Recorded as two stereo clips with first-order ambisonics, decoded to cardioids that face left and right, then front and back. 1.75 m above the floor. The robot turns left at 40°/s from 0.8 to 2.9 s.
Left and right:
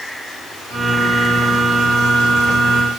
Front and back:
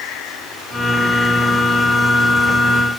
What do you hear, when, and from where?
Only background noise.